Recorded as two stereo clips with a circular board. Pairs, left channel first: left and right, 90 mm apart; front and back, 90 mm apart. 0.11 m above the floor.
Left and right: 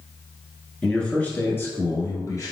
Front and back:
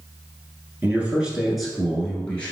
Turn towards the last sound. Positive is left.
turn(degrees=70)